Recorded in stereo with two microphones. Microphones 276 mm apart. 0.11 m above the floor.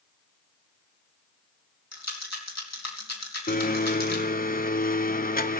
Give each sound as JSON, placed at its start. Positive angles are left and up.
{"t": 1.9, "sound": "a rattle", "side_deg": 60, "distance_m": 3.0}
{"t": 3.5, "sound": "a blender", "side_deg": 30, "distance_m": 0.8}